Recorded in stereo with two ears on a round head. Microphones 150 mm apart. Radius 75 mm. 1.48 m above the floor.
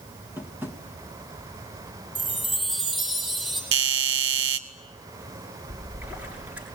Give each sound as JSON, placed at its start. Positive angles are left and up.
{"t": 0.4, "sound": "tapping", "side_deg": -10, "distance_m": 1.9}
{"t": 2.1, "sound": "a chime", "side_deg": 0, "distance_m": 7.0}
{"t": 3.7, "sound": "a doorbell", "side_deg": -70, "distance_m": 1.5}
{"t": 5.7, "sound": "a splash", "side_deg": -10, "distance_m": 7.0}